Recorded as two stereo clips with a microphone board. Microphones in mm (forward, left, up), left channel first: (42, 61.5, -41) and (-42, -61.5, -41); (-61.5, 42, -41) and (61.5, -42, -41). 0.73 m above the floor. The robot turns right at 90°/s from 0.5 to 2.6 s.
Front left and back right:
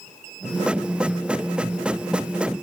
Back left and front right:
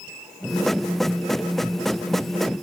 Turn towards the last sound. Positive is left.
No sound to turn to.